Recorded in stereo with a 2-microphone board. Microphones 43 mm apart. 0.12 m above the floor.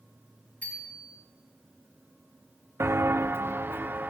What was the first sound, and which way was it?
A bicycle bell, 40° left (ahead or behind).